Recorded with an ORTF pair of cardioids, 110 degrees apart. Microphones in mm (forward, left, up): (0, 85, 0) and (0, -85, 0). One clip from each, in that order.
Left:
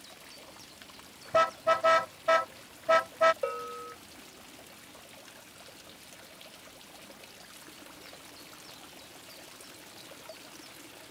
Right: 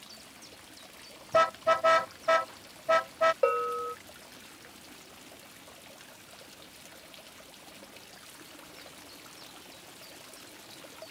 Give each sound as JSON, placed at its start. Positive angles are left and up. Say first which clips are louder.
{"t": 1.3, "sound": "a car horn", "louder": "right 1 dB", "azimuth_deg": -5}
{"t": 3.4, "sound": "a bell", "louder": "right 8 dB", "azimuth_deg": -30}